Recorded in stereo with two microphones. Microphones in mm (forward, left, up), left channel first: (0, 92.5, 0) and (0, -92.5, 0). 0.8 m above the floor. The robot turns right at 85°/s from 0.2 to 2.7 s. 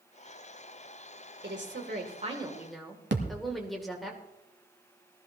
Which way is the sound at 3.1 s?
75° right (ahead or behind).